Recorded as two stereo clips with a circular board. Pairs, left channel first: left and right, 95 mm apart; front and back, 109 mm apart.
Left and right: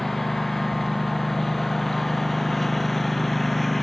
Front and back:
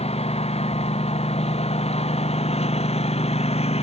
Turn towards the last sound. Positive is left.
turn(degrees=0)